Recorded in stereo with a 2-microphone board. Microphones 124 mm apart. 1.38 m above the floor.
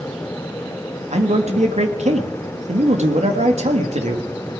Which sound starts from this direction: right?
A man speaking, at 1.1 s.